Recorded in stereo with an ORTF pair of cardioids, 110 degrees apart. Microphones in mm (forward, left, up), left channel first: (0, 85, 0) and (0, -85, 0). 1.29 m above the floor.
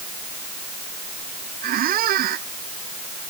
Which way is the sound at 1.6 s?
65° right.